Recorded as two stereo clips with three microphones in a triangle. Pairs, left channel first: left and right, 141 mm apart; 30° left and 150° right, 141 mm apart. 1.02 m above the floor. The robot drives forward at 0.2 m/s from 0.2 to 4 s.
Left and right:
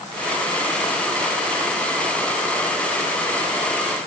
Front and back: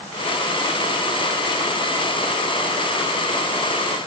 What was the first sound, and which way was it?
Only background noise.